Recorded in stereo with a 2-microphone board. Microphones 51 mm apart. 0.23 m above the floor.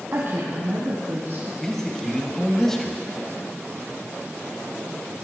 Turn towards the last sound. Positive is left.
turn(degrees=5)  # may be behind; listen again after turning